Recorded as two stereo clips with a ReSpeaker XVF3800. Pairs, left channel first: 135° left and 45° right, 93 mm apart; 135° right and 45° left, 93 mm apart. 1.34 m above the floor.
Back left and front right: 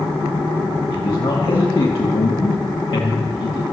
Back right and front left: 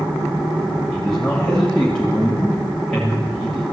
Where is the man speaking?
145° left, 3 m.